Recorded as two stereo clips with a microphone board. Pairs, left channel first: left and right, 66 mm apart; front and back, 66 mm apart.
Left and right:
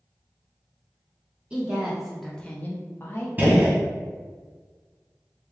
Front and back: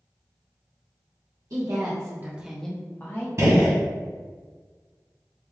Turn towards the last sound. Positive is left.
turn(degrees=-145)